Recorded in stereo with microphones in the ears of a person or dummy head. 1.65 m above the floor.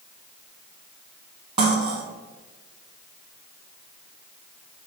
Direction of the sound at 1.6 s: 25° right (ahead or behind).